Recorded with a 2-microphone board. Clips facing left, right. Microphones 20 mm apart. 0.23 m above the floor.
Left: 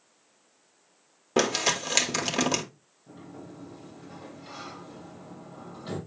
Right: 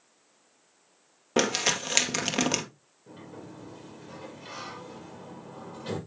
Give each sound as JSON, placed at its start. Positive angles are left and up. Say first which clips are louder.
{"t": 1.4, "sound": "crumpling", "louder": "left 1 dB", "side_deg": -5, "distance_m": 1.4}
{"t": 3.1, "sound": "a sliding door", "louder": "even", "side_deg": -75, "distance_m": 5.0}